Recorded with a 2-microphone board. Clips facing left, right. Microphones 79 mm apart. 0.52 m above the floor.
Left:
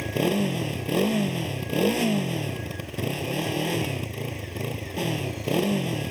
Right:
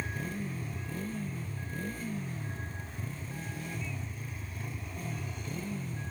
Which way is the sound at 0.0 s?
85° left.